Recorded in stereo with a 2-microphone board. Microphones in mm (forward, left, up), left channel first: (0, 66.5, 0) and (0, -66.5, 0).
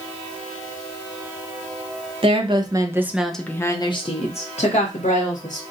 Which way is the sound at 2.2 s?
45° right (ahead or behind).